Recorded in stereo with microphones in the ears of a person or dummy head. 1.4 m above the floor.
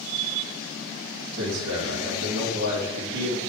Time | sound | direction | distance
1.3 | a man speaking | 60° right (ahead or behind) | 3 m